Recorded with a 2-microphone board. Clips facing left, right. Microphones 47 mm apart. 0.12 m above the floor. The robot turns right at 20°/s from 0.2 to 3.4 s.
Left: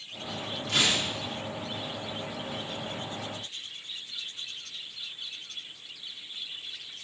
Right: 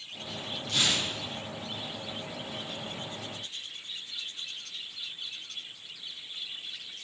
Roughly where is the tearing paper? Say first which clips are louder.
Left 2 dB; left.